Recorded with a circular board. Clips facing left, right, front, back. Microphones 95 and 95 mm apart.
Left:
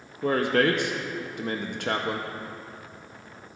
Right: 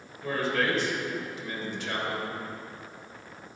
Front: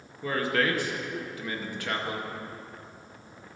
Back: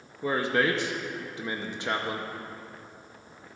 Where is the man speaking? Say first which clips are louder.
Left 6 dB, back 1 dB; 115° left, 0.7 m.